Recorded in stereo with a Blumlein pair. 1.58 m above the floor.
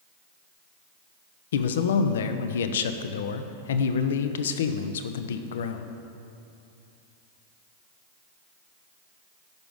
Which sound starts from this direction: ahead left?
A man speaking, at 1.5 s.